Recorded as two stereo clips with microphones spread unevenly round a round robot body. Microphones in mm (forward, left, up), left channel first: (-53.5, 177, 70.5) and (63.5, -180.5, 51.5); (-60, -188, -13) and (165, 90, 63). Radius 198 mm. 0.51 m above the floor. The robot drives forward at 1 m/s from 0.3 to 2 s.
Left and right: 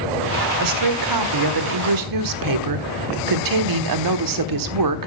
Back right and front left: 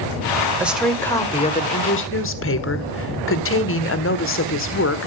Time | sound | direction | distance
0.6 | a woman speaking | 40° right | 2.0 m